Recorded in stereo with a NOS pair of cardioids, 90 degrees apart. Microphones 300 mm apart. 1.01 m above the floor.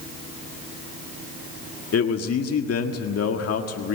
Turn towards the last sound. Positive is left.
turn(degrees=55)